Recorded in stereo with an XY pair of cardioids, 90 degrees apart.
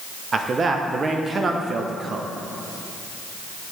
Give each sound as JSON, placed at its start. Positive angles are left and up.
{"t": 0.3, "sound": "a man speaking", "azimuth_deg": -45, "distance_m": 0.6}